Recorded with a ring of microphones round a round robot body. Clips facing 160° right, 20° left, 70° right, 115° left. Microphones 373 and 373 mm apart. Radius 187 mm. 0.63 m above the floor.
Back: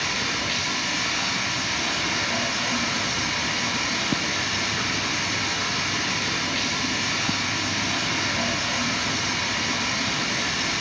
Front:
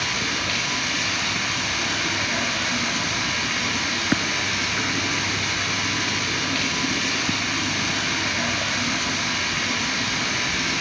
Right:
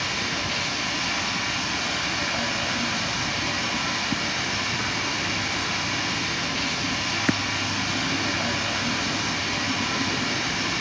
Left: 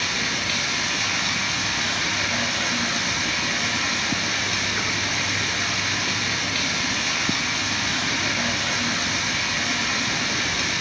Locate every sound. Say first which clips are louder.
0.0 s running water: front 1 dB, even; 105° left, 4.5 m